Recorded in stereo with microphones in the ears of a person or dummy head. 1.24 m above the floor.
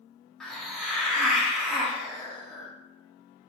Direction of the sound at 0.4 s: 5° left (ahead or behind).